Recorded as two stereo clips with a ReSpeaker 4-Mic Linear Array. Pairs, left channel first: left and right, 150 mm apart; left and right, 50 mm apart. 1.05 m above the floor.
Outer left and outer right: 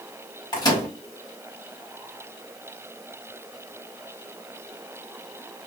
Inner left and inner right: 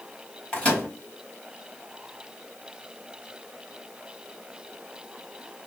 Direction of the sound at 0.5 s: 25° left (ahead or behind).